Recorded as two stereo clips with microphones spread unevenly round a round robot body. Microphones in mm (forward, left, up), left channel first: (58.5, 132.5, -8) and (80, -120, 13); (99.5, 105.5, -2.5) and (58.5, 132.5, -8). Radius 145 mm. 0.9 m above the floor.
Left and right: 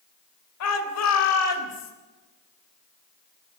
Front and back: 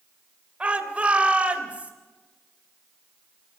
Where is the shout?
80° left, 3.5 m.